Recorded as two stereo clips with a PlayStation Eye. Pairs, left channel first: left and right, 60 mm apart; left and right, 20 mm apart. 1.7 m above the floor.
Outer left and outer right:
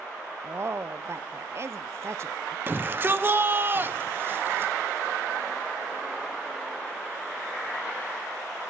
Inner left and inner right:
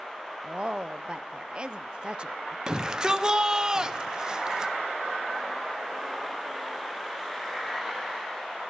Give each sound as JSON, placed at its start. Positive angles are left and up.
{"t": 0.4, "sound": "a woman speaking", "side_deg": -45, "distance_m": 0.6}
{"t": 2.7, "sound": "a shout", "side_deg": -35, "distance_m": 1.1}